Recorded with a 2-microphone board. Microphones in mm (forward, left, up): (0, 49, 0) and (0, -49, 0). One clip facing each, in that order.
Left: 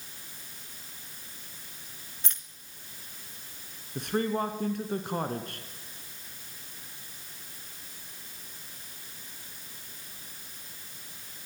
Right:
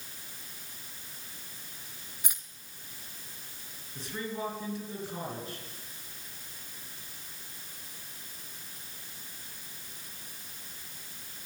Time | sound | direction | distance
2.2 | keys jangling | 10° right (ahead or behind) | 2.0 m
4.0 | a man speaking | 60° left (ahead or behind) | 3 m